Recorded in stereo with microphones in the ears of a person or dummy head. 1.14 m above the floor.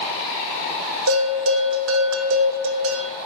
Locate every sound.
1.1 s a bell: 75° right (ahead or behind), 1.7 m